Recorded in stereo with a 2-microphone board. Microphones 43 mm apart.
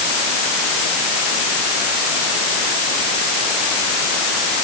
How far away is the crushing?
I don't hear crushing.